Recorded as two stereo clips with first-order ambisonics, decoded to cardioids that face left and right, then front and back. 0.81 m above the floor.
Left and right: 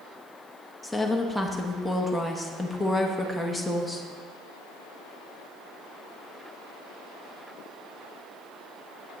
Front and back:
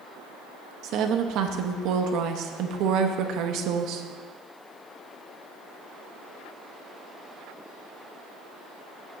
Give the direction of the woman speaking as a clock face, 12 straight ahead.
6 o'clock.